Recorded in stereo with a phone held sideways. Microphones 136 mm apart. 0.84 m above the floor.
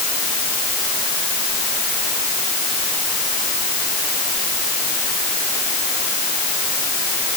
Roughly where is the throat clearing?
I don't hear throat clearing.